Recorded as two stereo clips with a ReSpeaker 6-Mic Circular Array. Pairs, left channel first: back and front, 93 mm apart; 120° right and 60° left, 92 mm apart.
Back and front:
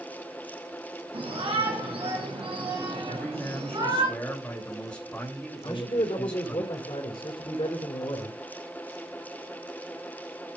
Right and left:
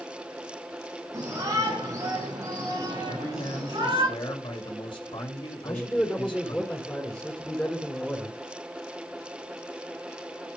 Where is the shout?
5° left, 7 m; by 4.1 s 10° left, 8.5 m.